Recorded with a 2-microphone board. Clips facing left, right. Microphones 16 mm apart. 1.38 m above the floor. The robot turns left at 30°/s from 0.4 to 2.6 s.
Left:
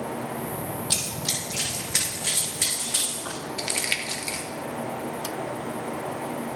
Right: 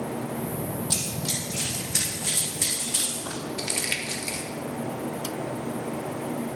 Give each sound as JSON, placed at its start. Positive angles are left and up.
{"t": 0.9, "sound": "running footsteps", "side_deg": 45, "distance_m": 2.0}
{"t": 3.6, "sound": "crumpling", "side_deg": 20, "distance_m": 1.0}